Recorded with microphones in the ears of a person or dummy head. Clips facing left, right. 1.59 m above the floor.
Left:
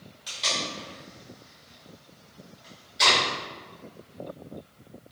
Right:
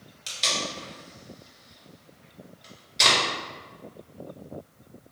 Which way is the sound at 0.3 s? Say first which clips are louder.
Right 1 dB; 35° right (ahead or behind).